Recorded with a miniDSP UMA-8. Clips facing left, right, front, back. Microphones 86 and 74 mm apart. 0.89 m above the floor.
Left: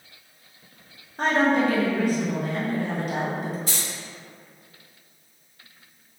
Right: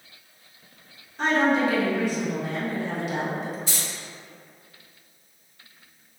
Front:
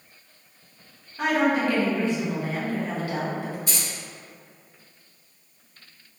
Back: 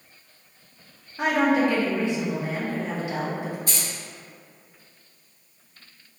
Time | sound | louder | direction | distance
1.2 | a woman speaking | left 1 dB, back 1 dB | 115° left | 0.7 m
3.7 | keys jangling | left 1 dB, even | 135° left | 1.3 m